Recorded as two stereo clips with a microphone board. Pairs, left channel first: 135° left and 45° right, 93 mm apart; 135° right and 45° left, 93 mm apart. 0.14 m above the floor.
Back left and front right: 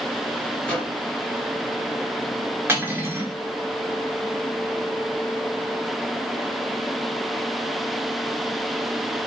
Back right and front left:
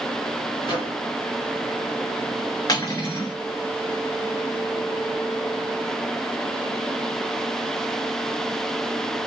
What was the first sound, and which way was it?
A microwave, 160° right.